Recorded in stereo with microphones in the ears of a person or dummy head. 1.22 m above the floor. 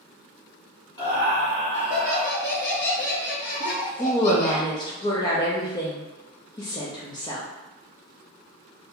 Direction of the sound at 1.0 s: 25° left (ahead or behind).